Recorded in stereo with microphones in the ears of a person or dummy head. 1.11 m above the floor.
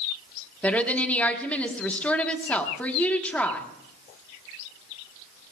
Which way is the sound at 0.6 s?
5° left (ahead or behind).